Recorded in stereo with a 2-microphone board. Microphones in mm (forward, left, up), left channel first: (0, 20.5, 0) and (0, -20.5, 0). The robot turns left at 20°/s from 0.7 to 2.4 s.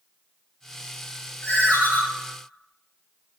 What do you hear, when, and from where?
1.4 s a ringtone: 35° left (ahead or behind), 1.9 m; by 2.0 s 45° left (ahead or behind), 1.9 m